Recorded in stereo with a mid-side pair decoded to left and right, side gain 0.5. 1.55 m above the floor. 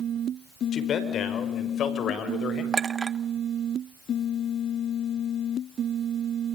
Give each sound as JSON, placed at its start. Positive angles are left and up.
{"t": 0.7, "sound": "a man speaking", "azimuth_deg": 55, "distance_m": 5.5}
{"t": 2.7, "sound": "a clink", "azimuth_deg": -30, "distance_m": 1.3}